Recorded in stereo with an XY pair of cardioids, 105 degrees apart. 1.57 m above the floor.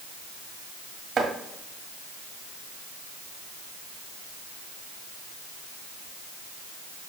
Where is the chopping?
50° right, 2.5 m.